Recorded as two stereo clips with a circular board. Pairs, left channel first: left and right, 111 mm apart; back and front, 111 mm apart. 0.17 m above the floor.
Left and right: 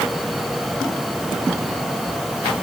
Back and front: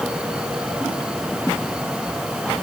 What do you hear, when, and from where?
Only background noise.